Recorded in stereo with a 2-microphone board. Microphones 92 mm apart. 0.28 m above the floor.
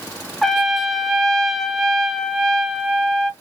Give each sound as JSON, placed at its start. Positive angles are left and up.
{"t": 0.4, "sound": "a trumpet", "side_deg": 5, "distance_m": 0.6}